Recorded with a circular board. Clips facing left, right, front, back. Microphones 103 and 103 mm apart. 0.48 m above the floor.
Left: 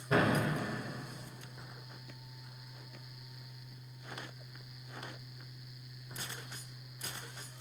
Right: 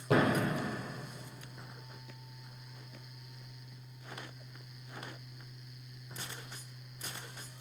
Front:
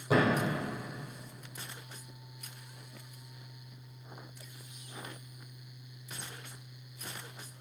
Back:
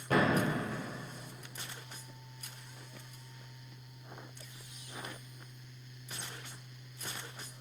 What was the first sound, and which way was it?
A thud, 80° right.